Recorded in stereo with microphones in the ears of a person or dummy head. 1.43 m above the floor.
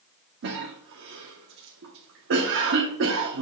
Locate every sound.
0.4 s a cough: 55° right (ahead or behind), 1.1 m